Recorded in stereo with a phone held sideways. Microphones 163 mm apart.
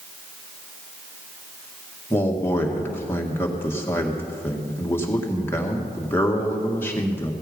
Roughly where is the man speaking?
Centre.